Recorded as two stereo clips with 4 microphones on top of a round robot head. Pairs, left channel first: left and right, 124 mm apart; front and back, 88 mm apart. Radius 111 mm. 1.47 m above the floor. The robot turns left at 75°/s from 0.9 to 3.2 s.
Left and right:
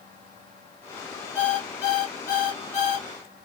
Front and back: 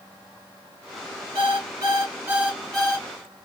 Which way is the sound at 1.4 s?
165° right.